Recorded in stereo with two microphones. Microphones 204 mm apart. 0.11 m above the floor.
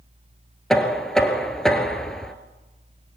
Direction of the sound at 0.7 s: 5° left (ahead or behind).